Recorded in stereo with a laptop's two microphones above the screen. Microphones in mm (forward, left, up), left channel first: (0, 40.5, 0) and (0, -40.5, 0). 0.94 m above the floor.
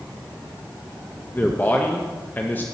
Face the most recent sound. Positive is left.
turn(degrees=20)  # may be behind; listen again after turning